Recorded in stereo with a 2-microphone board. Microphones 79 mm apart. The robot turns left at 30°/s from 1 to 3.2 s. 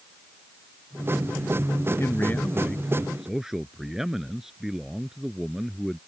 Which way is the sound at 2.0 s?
35° left.